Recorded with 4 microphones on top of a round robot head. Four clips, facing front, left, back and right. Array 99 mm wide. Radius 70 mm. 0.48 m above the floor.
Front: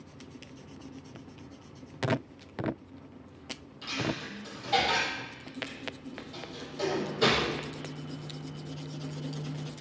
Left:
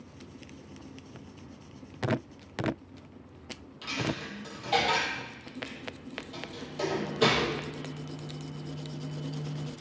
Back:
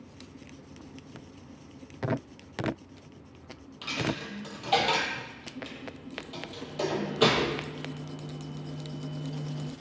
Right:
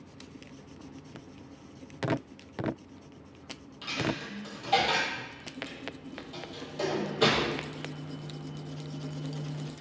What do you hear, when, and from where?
3.8 s a dropped coin: 175° left, 0.5 m